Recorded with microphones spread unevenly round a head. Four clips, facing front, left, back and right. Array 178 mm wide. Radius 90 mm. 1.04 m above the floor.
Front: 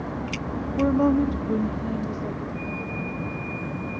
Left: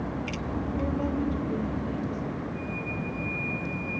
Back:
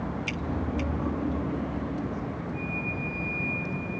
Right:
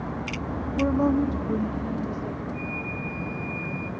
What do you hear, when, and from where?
0.8 s a woman speaking: 30° right, 0.6 m; by 2.4 s 20° right, 2.5 m
2.5 s a flute: 110° right, 9.5 m